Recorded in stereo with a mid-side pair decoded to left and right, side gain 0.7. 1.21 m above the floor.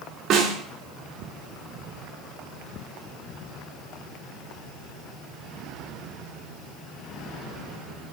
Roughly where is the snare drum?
Ahead right.